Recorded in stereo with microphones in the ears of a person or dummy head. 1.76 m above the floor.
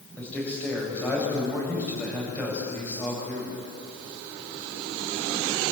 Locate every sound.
0.2 s a man speaking: 15° left (ahead or behind), 8.5 m